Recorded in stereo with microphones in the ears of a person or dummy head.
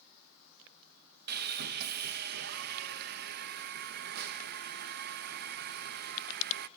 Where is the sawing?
55° right (ahead or behind), 0.6 m.